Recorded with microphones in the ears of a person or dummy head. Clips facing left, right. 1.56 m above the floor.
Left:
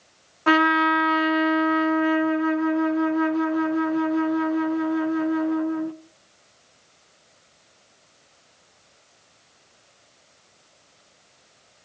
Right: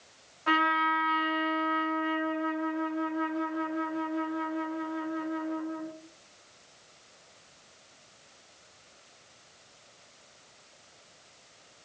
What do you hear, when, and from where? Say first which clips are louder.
0.5 s a trumpet: left 10 dB; 75° left (ahead or behind), 0.9 m